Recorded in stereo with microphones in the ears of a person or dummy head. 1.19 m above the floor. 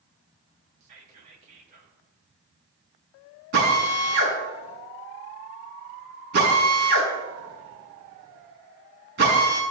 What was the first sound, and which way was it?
Whispering, 40° right (ahead or behind).